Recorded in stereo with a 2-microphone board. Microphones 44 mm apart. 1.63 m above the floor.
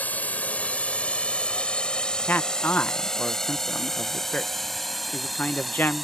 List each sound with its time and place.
0.0 s a drone: 35° left (ahead or behind); by 6.1 s centre (ahead or behind)
2.3 s a man speaking: 45° left (ahead or behind)